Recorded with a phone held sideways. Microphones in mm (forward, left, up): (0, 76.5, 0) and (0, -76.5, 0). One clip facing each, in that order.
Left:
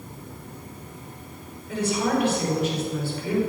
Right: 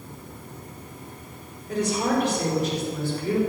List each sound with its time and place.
1.7 s a woman speaking: 40° right (ahead or behind), 5.5 m